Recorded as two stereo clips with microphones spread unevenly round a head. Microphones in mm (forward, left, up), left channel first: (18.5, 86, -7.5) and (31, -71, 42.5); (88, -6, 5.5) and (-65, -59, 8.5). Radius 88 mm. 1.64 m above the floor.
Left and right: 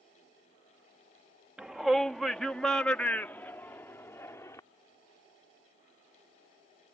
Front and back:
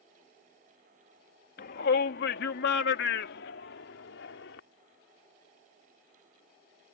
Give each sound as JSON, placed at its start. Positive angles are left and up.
{"t": 1.6, "sound": "a shout", "azimuth_deg": -5}